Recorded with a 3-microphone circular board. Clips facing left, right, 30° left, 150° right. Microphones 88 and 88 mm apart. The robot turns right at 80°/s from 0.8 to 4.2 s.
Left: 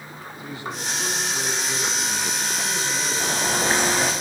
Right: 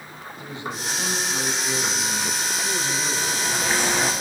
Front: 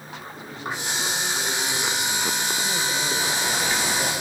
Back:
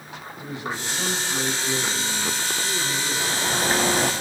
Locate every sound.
0.4 s a man speaking: 155° right, 6 m; by 4.2 s 120° left, 6 m
3.2 s a bird: 115° left, 2.0 m; by 4.1 s 175° right, 2.0 m